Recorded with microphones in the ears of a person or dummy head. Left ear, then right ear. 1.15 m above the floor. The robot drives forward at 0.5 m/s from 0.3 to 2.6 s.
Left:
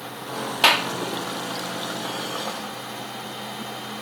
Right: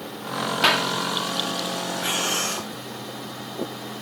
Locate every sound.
0.6 s a clap: 15° left (ahead or behind)
2.0 s breathing: 60° right (ahead or behind); by 2.7 s 50° right (ahead or behind)